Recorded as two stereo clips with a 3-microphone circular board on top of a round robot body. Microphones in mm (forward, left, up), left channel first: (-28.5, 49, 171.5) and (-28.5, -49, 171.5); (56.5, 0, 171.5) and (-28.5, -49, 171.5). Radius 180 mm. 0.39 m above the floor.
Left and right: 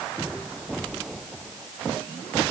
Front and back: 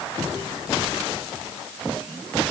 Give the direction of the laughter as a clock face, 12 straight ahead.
No laughter in this recording.